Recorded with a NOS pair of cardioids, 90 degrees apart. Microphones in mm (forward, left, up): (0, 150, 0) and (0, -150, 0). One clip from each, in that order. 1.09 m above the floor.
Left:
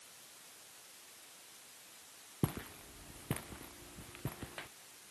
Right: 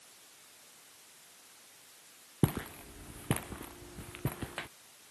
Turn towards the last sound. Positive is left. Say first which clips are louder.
# right 6 dB
turn(degrees=-50)